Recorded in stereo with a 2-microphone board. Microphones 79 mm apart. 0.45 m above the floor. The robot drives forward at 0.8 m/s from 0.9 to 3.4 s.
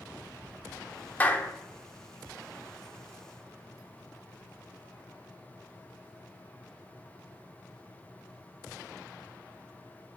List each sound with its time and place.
1.2 s a clap: 20° left (ahead or behind), 0.8 m